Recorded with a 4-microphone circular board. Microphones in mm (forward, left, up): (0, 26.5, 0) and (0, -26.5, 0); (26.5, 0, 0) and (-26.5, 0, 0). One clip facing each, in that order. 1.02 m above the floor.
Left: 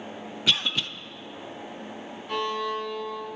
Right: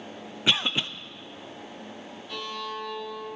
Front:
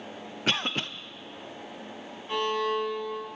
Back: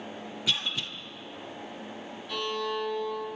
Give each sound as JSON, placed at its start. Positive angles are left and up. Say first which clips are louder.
{"t": 0.5, "sound": "a cough", "louder": "right 1 dB, front 4 dB", "azimuth_deg": -25, "distance_m": 0.7}
{"t": 2.3, "sound": "a violin", "louder": "left 7 dB, front 4 dB", "azimuth_deg": 55, "distance_m": 2.5}